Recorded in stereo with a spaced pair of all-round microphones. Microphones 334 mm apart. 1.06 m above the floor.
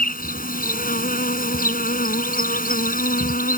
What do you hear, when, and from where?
0.0 s an insect: 25° left (ahead or behind)